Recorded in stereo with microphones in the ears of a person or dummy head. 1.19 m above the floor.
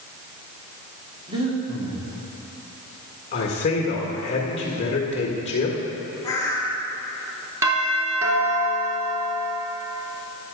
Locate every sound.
1.3 s breathing: 30° right (ahead or behind), 1.6 m
3.3 s a man speaking: 35° left (ahead or behind), 1.4 m
6.2 s a bird: 15° left (ahead or behind), 1.6 m
7.6 s a doorbell: 15° right (ahead or behind), 2 m